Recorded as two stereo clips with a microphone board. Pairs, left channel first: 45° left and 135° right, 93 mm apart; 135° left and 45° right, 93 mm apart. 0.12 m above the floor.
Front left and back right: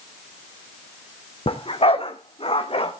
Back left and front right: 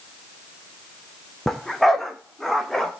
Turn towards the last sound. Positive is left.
turn(degrees=45)